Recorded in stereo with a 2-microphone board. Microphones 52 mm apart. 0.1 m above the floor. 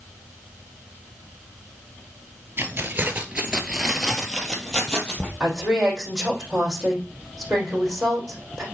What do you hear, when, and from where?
2.6 s keys jangling: 45° right (ahead or behind), 1.6 m; by 5.3 s 20° left (ahead or behind), 2.5 m
5.4 s a woman speaking: centre (ahead or behind), 5 m